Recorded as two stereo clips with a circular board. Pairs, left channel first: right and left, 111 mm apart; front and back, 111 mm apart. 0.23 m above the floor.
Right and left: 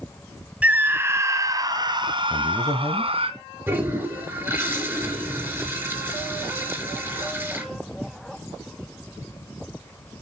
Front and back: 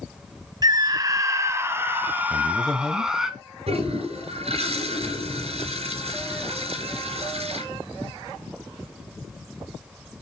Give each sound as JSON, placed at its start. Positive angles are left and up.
{"t": 0.6, "sound": "a scream", "azimuth_deg": 160, "distance_m": 1.7}
{"t": 2.3, "sound": "a man speaking", "azimuth_deg": -75, "distance_m": 1.4}
{"t": 3.7, "sound": "a toilet flushing", "azimuth_deg": 160, "distance_m": 4.0}